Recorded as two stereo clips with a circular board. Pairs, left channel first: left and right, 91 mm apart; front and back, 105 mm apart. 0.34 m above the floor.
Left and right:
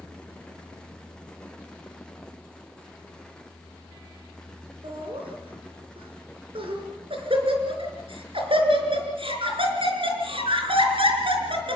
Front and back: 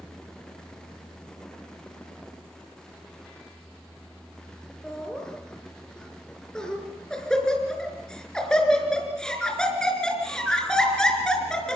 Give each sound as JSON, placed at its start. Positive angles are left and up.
{"t": 4.8, "sound": "laughter", "azimuth_deg": -85, "distance_m": 5.0}